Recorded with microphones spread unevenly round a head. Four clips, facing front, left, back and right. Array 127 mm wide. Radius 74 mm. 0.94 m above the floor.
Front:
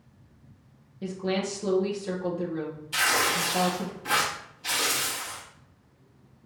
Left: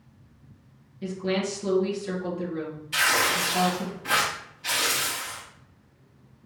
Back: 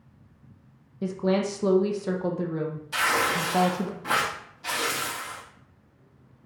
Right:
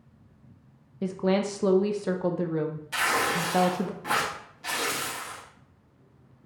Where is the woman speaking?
150° right, 0.7 m.